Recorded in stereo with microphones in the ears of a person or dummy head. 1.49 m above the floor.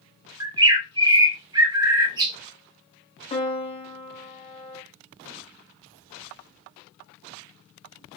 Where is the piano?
30° left (ahead or behind), 0.7 m.